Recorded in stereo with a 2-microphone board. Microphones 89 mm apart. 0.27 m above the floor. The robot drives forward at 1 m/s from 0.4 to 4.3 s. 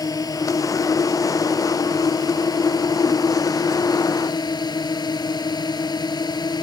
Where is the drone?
45° left (ahead or behind); by 6.6 s 50° left (ahead or behind).